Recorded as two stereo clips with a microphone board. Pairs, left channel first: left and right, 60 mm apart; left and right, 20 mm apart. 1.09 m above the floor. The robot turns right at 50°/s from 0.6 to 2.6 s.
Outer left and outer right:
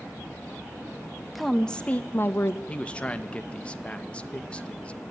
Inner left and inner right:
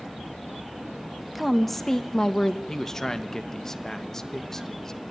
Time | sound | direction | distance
1.4 | a woman speaking | straight ahead | 1.2 m
2.7 | a man speaking | 20° left (ahead or behind) | 1.0 m